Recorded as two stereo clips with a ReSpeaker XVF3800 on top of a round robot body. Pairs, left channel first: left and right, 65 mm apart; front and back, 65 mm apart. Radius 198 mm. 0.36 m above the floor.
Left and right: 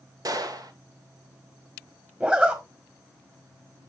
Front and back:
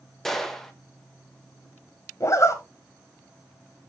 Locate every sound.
0.2 s a gunshot: 85° right, 1.4 m
2.2 s a zipper: 25° right, 2.0 m